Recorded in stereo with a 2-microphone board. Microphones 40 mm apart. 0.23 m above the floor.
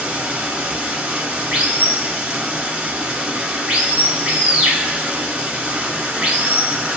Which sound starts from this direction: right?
Running water, at 0.0 s.